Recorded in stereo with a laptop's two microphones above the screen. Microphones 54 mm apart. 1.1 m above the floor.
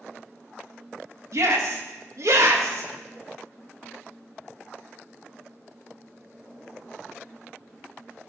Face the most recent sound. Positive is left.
turn(degrees=-70)  # may be behind; listen again after turning